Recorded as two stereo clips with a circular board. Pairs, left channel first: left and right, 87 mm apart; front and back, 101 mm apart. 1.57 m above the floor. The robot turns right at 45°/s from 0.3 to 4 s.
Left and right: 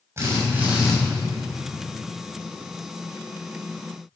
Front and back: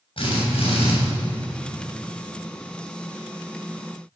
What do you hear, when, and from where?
0.2 s a drill: 30° right, 6.5 m; by 0.9 s straight ahead, 6.5 m